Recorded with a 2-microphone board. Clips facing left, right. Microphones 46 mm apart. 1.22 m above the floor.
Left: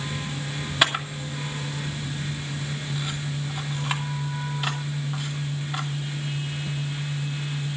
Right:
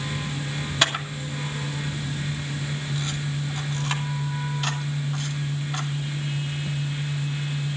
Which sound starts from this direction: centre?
A camera shutter, at 0.8 s.